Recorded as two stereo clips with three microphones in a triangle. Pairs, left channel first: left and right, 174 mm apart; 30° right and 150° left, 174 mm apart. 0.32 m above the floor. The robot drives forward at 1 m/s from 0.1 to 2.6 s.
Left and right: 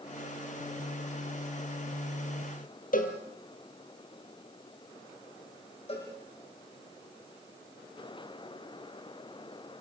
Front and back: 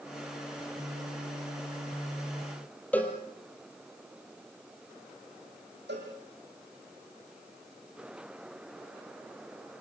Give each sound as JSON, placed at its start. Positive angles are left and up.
{"t": 2.9, "sound": "a cowbell", "azimuth_deg": 50, "distance_m": 3.0}
{"t": 5.9, "sound": "a cowbell", "azimuth_deg": 145, "distance_m": 9.0}